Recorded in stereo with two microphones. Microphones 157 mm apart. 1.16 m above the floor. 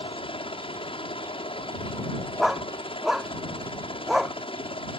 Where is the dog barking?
Centre (ahead or behind).